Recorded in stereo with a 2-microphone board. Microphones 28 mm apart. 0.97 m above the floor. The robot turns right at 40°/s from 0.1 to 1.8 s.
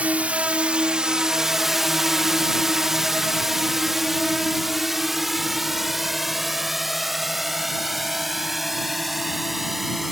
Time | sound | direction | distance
0.0 | a drone | 65° right (ahead or behind) | ?